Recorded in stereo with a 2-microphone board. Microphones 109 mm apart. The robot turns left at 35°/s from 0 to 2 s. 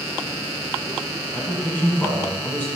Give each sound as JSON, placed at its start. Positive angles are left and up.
{"t": 1.3, "sound": "a man speaking", "side_deg": 10, "distance_m": 1.3}